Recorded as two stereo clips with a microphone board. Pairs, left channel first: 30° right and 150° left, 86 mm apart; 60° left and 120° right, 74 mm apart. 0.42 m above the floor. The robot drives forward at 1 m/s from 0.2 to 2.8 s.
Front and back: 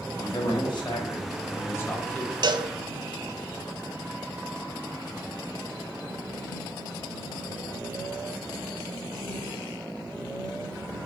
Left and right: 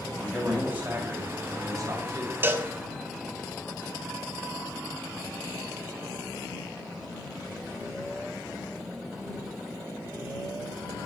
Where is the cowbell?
Straight behind, 0.6 m.